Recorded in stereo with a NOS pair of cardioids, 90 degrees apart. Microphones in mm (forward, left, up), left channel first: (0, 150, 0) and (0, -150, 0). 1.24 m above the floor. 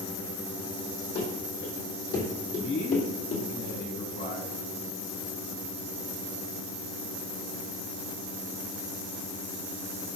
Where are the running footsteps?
55° left, 4 m; by 3.5 s 60° left, 2.5 m.